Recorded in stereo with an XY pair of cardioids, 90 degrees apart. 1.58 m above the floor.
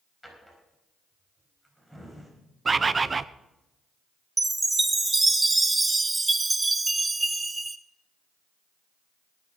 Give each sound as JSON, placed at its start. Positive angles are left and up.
{"t": 0.2, "sound": "a drawer", "azimuth_deg": 5, "distance_m": 4.5}
{"t": 2.6, "sound": "a bird", "azimuth_deg": -35, "distance_m": 0.6}
{"t": 4.4, "sound": "a chime", "azimuth_deg": -20, "distance_m": 0.9}